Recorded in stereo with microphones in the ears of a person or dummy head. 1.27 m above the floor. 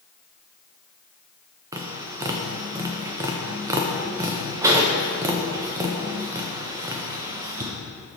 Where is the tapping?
20° right (ahead or behind), 0.6 m.